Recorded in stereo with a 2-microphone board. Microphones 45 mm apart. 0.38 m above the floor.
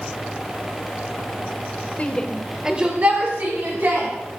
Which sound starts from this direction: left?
A shout, at 2.0 s.